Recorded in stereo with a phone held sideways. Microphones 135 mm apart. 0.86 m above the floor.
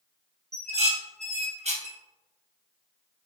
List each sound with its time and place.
0.5 s dishes clattering: 55° right (ahead or behind), 0.9 m